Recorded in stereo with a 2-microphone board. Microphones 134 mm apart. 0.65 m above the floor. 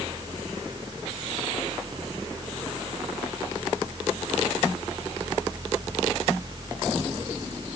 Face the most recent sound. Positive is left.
No sound to turn to.